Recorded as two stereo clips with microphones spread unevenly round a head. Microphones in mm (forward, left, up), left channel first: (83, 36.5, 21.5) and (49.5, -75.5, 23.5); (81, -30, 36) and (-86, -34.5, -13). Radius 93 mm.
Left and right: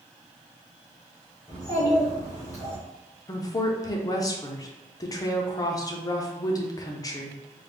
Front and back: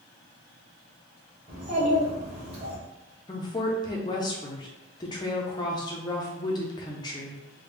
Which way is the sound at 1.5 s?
120° left.